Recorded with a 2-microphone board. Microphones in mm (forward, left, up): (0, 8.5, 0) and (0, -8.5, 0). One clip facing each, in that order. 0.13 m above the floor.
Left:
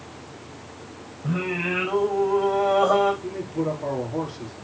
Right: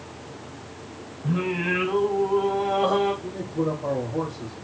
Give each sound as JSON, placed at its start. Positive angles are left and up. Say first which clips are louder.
{"t": 1.2, "sound": "singing", "louder": "right 1 dB", "side_deg": 75, "distance_m": 4.5}
{"t": 3.2, "sound": "a man speaking", "louder": "even", "side_deg": 60, "distance_m": 3.0}